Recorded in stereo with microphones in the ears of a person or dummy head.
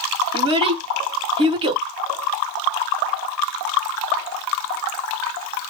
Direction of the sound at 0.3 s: 25° right (ahead or behind).